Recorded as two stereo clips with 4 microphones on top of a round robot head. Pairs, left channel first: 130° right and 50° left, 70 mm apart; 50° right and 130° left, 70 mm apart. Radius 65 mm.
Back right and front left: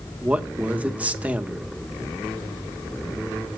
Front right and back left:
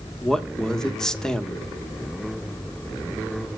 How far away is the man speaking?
About 1.3 m.